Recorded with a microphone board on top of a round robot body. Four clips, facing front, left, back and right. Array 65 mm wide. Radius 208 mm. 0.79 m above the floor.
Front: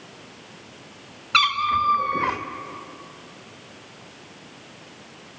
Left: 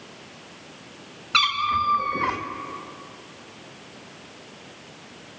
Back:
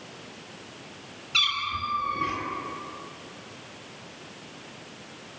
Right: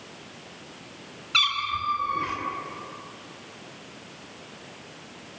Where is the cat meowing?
20° left, 1.0 m.